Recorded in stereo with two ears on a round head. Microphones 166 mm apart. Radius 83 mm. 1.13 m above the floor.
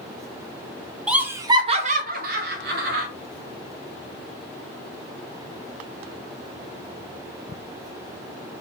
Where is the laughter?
5° right (ahead or behind), 0.7 m; by 3.1 s 55° right (ahead or behind), 1.0 m.